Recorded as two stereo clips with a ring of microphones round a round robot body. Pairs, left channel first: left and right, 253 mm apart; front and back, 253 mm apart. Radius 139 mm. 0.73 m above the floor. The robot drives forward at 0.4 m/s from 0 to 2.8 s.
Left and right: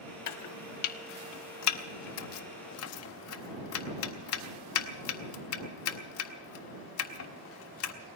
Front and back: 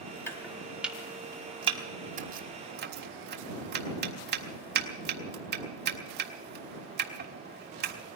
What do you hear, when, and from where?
0.3 s chopping: 80° left, 1.2 m; by 7.9 s 125° left, 1.5 m